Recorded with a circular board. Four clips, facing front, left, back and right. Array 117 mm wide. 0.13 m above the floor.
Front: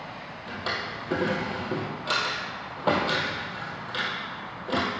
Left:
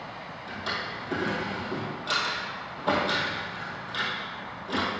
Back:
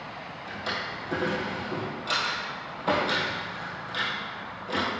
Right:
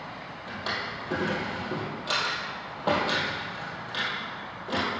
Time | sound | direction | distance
0.5 | a drawer | 25° right | 2 m